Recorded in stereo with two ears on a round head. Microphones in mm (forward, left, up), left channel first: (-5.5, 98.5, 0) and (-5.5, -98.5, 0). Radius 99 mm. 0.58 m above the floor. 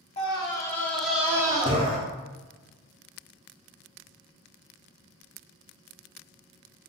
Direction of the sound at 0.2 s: 25° left (ahead or behind).